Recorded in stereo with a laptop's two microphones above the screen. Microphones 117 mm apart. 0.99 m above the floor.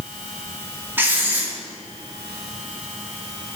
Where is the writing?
20° right (ahead or behind), 2.5 m.